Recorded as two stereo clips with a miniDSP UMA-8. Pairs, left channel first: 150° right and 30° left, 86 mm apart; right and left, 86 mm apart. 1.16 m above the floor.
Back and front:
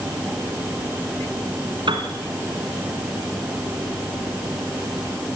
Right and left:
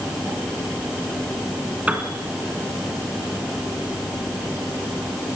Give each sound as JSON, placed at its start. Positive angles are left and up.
{"t": 1.9, "sound": "a piano", "azimuth_deg": 15, "distance_m": 2.5}